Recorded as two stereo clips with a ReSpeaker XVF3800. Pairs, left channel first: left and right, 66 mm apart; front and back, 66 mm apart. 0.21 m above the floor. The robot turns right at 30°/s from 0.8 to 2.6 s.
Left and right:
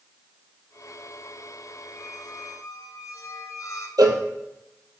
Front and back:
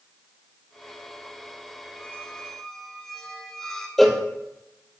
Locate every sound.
1.9 s a squeak: 65° left, 1.8 m; by 3.9 s 80° left, 1.8 m
4.0 s a cowbell: 85° right, 1.4 m